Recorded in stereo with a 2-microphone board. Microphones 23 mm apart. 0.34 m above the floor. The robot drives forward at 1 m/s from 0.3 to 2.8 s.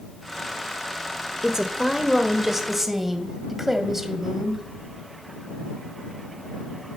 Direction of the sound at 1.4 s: 20° right (ahead or behind).